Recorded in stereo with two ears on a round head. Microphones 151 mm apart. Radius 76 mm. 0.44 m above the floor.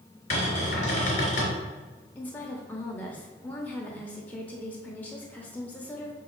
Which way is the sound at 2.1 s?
10° left (ahead or behind).